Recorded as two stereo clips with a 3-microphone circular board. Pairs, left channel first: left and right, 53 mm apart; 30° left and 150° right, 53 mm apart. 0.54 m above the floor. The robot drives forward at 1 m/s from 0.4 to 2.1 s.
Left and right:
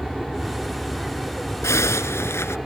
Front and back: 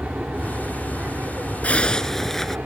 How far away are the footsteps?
I don't hear footsteps.